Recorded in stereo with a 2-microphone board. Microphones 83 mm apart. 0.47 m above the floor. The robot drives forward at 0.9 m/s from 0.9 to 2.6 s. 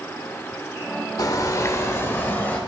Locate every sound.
1.2 s a bird: 45° left (ahead or behind), 0.9 m; by 2.6 s 25° left (ahead or behind), 1.8 m